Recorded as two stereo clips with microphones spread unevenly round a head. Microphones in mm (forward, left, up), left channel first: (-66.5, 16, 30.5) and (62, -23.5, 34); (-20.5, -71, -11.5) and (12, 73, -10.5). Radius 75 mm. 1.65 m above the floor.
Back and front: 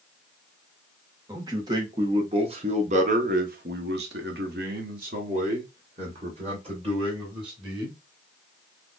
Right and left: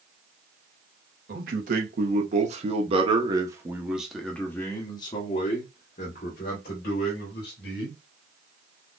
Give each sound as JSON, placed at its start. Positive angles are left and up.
{"t": 1.3, "sound": "a man speaking", "azimuth_deg": 50, "distance_m": 1.7}